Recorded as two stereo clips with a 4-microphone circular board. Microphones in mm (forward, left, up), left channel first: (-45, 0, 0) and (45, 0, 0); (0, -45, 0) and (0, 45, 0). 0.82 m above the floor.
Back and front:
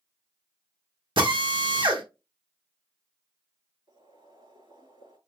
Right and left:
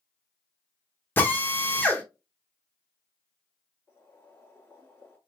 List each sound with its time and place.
1.2 s a drill: 20° right, 1.4 m
3.9 s boiling: 20° right, 4.5 m